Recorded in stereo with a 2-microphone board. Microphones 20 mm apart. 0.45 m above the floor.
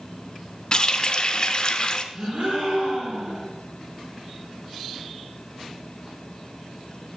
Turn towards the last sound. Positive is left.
turn(degrees=-75)  # may be behind; listen again after turning